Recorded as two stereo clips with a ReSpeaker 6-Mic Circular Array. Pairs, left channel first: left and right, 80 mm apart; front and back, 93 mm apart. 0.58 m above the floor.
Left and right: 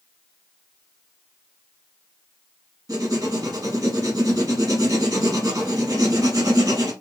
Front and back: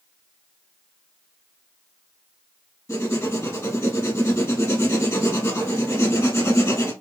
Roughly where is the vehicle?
No vehicle in this recording.